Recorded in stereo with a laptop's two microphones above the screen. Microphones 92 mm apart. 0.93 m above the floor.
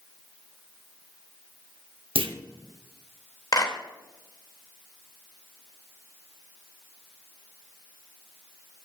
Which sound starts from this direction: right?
A clunk, at 2.1 s.